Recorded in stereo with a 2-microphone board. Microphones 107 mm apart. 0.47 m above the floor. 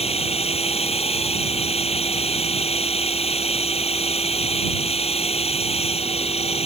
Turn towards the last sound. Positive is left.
turn(degrees=75)  # may be behind; listen again after turning